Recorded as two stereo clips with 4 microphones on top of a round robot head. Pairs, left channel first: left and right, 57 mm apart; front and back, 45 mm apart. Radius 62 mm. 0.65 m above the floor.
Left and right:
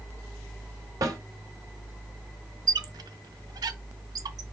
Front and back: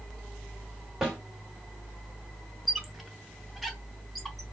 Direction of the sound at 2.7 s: 95° right.